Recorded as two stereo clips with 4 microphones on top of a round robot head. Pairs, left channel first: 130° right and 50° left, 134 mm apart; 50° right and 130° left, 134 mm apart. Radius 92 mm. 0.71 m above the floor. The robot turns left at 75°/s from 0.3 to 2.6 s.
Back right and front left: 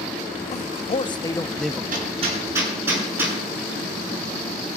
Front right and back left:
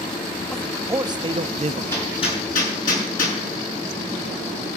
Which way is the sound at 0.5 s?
130° right.